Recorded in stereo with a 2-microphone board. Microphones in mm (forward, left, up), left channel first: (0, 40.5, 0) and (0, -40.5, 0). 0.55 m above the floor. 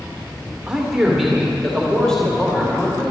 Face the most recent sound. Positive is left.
turn(degrees=15)  # may be behind; listen again after turning